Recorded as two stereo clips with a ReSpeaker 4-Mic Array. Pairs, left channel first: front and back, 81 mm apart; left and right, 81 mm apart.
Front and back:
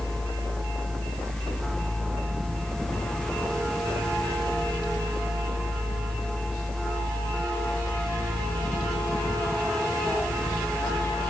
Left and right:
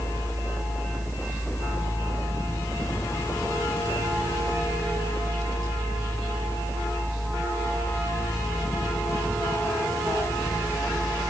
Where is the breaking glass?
No breaking glass in this recording.